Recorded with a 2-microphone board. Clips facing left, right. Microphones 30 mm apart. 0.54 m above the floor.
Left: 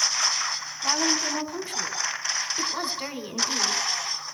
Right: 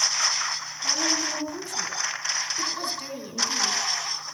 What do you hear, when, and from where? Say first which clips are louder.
0.8 s a woman speaking: left 1 dB; 45° left (ahead or behind), 2.5 m